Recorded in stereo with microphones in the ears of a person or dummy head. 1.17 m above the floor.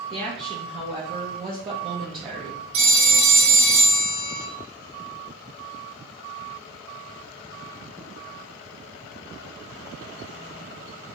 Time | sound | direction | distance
0.1 | a woman speaking | 30° right (ahead or behind) | 0.6 m
2.7 | a phone ringing | 70° right (ahead or behind) | 1.1 m